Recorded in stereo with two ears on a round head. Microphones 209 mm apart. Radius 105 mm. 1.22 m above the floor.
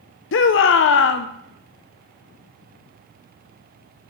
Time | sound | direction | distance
0.3 | a shout | 55° left (ahead or behind) | 0.6 m